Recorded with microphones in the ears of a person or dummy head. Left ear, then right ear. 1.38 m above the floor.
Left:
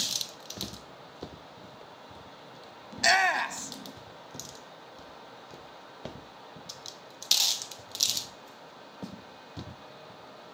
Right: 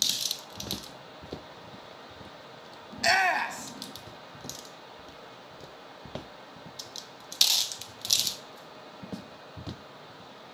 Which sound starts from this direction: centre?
A shout, at 2.9 s.